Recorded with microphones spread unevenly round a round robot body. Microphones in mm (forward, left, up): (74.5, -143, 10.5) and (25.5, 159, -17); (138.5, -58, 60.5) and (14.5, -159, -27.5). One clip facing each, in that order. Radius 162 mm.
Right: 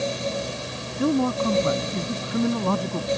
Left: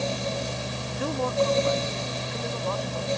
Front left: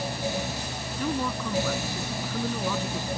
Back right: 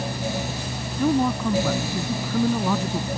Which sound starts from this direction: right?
A man speaking, at 1.0 s.